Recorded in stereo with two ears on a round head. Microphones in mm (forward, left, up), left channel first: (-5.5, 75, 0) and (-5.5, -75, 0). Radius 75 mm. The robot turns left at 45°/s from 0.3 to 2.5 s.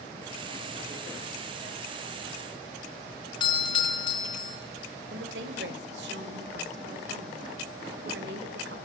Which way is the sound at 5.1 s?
80° right.